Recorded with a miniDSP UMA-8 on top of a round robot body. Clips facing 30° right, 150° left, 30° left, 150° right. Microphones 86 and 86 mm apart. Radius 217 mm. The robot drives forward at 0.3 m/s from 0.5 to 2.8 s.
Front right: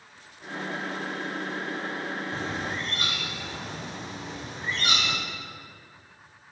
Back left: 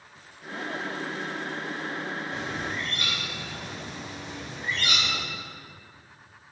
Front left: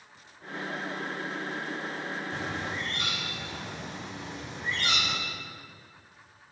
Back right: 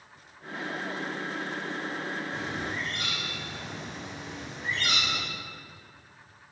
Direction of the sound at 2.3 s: 25° left.